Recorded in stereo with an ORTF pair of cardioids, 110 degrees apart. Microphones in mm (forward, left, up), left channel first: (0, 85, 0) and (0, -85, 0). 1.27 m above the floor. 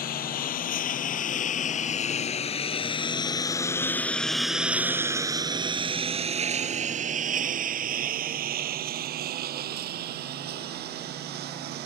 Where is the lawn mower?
60° left; by 11.9 s 75° right.